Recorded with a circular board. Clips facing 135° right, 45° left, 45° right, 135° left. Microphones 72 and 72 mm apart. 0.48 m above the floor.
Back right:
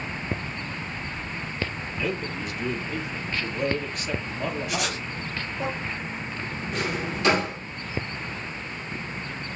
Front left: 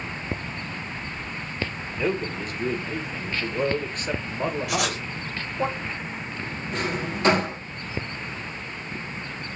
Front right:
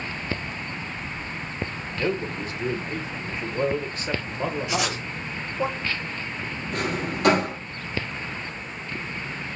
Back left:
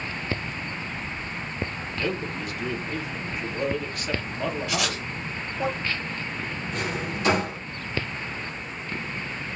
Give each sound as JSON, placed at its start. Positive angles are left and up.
{"t": 1.9, "sound": "a man speaking", "azimuth_deg": 10, "distance_m": 1.8}
{"t": 4.7, "sound": "writing", "azimuth_deg": 25, "distance_m": 3.0}
{"t": 6.7, "sound": "a drawer", "azimuth_deg": -10, "distance_m": 4.0}